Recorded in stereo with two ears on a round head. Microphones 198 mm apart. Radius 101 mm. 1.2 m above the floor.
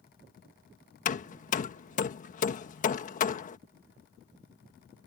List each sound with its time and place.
1.1 s hammering: 35° left (ahead or behind)